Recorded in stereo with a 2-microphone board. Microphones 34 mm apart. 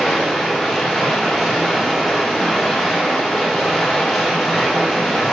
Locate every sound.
0.0 s running water: centre (ahead or behind), 3.5 m